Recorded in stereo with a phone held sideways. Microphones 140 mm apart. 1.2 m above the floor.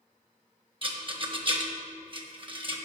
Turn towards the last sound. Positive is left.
turn(degrees=-35)  # may be behind; listen again after turning